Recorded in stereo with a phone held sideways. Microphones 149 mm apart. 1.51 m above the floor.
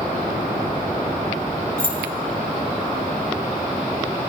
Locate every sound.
1.8 s keys jangling: 70° right (ahead or behind), 1.9 m